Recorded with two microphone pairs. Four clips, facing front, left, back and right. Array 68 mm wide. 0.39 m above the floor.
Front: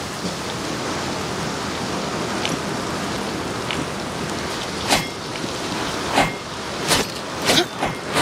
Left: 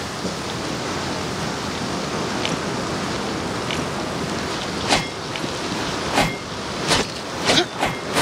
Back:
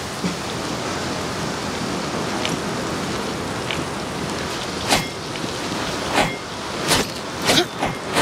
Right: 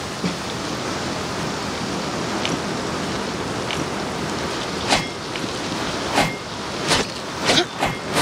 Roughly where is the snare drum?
Behind right.